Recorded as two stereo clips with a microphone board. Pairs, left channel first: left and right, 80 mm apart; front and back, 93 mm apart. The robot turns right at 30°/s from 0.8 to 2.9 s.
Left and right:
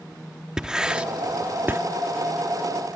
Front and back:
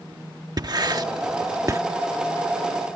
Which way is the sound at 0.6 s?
165° right.